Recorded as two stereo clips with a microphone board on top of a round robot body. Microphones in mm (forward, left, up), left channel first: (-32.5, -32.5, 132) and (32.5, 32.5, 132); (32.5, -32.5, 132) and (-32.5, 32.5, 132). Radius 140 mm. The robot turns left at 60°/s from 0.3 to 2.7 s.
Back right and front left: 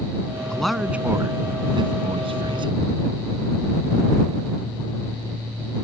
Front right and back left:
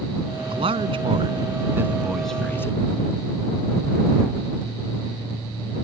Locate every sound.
0.5 s a man speaking: 145° left; by 2.8 s 15° left